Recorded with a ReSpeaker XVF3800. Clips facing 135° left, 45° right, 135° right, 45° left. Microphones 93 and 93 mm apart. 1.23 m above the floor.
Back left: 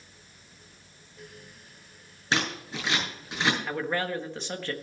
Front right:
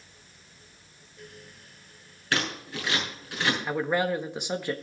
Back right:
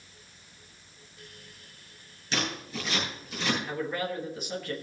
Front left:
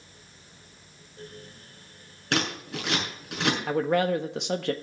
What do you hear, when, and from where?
2.3 s scissors: 65° left, 6.5 m
3.7 s a man speaking: 30° left, 1.3 m